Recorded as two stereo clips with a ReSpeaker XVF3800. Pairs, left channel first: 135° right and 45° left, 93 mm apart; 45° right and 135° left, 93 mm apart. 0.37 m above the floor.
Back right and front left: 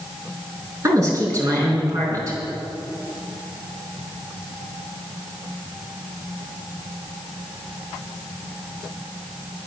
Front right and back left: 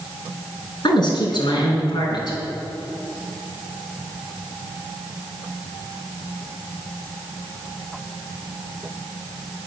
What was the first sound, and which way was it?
A woman speaking, 5° right.